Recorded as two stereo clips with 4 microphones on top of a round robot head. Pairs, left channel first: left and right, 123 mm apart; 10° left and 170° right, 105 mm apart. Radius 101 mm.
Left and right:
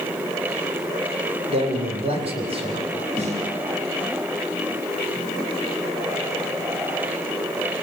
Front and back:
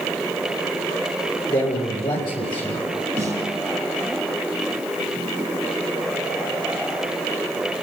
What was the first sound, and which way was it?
A man speaking, 50° right.